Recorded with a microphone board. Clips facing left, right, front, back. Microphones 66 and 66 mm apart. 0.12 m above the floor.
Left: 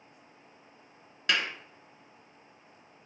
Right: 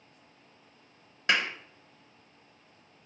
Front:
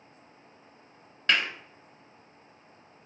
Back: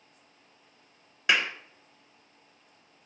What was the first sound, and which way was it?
A clap, 115° right.